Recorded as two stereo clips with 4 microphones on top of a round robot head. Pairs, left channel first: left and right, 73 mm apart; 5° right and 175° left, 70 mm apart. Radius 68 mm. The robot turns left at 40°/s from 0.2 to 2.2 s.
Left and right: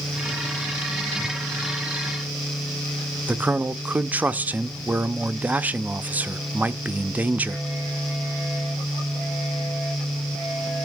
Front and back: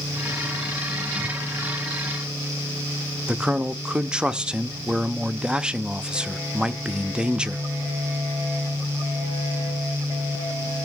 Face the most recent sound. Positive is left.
turn(degrees=-125)